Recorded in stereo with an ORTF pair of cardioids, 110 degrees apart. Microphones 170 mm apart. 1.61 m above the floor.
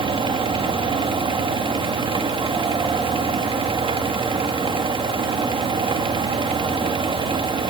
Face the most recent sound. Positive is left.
turn(degrees=-30)